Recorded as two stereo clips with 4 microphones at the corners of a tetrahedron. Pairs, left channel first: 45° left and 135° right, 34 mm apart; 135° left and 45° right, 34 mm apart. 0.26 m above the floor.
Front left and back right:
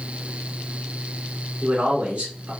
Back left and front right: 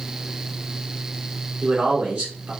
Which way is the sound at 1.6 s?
95° right.